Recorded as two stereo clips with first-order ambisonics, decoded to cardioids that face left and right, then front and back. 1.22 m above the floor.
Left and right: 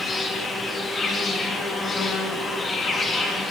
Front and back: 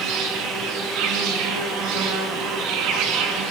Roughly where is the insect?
Behind.